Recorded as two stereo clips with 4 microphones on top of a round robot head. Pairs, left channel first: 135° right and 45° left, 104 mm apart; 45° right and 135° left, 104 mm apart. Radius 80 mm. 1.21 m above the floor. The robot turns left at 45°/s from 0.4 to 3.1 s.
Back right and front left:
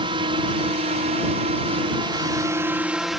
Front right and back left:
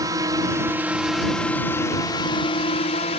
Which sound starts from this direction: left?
A drone, at 0.0 s.